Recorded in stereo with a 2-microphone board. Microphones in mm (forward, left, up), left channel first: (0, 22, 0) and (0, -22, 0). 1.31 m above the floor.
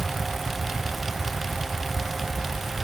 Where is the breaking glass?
No breaking glass in this recording.